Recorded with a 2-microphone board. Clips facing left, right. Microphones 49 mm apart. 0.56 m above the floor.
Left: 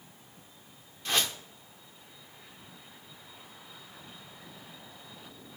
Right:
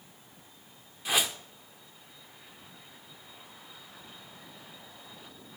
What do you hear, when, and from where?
1.1 s a whoosh: 10° right (ahead or behind), 0.7 m